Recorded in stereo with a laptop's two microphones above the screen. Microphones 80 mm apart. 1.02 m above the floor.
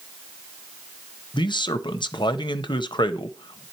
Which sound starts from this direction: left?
A man speaking, at 1.3 s.